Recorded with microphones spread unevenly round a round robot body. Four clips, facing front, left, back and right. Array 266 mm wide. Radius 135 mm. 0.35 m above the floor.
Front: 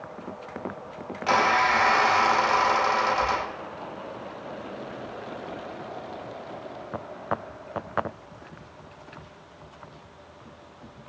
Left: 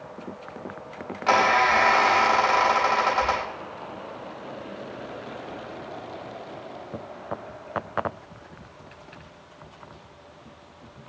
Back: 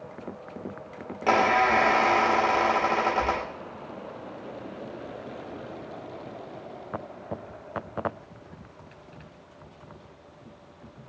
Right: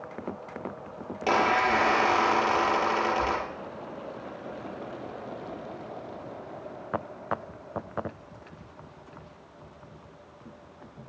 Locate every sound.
1.3 s a squeak: 135° right, 5 m